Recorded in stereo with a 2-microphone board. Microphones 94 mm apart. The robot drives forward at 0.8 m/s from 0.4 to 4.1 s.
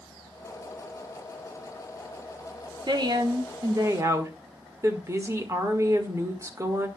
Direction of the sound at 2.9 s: 50° right (ahead or behind).